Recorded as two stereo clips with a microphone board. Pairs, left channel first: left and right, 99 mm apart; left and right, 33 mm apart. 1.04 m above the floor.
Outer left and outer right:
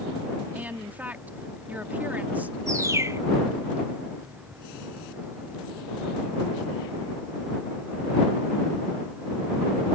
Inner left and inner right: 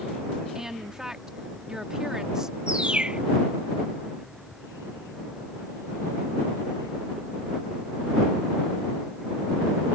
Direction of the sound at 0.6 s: 15° right (ahead or behind).